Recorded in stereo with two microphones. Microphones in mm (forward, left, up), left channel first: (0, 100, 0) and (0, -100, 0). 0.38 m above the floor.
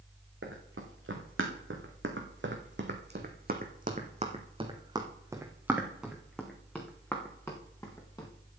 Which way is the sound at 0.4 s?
85° right.